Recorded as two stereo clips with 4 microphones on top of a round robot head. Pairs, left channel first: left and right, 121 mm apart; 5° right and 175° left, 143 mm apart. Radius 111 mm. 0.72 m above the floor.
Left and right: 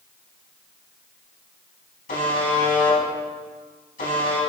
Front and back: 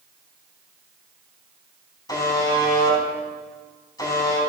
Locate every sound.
2.1 s a buzzer: 60° left, 4.5 m